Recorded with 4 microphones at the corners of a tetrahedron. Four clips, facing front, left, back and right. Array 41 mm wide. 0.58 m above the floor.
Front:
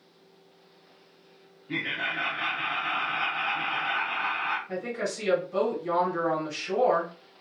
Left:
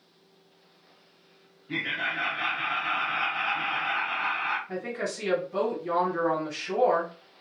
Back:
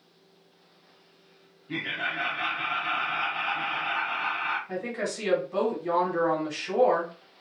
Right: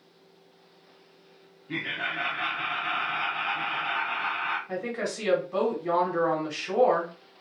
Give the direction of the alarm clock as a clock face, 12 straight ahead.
No alarm clock in this recording.